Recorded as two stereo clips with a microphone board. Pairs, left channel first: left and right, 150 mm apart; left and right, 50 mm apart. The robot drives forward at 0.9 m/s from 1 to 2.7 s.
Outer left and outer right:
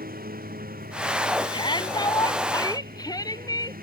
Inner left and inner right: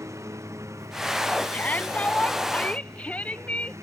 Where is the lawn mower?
75° right (ahead or behind).